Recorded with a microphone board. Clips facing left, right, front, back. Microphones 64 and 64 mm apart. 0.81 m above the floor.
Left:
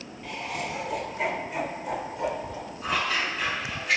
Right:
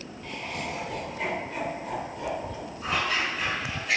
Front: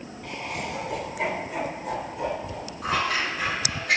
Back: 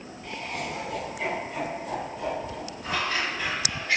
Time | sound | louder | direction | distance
0.2 | laughter | left 2 dB, front 1 dB | 5° left | 4 m
2.8 | scissors | even, front 3 dB | straight ahead | 6 m